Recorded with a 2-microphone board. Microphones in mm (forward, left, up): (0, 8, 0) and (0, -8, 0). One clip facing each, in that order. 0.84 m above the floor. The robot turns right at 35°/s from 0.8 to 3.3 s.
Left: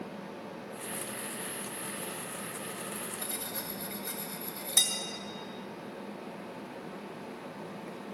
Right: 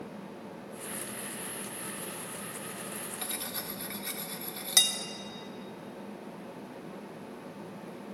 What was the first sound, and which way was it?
Cutlery clinking, 65° right (ahead or behind).